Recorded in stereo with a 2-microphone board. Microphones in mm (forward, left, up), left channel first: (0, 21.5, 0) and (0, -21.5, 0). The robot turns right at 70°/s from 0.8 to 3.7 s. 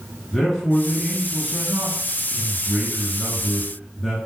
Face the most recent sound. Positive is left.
turn(degrees=-5)  # may be behind; listen again after turning